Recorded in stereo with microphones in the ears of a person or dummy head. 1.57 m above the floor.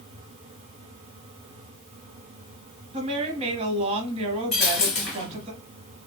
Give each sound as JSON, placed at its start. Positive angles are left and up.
{"t": 2.9, "sound": "a woman speaking", "side_deg": -30, "distance_m": 0.8}
{"t": 4.5, "sound": "a dropped coin", "side_deg": 5, "distance_m": 1.2}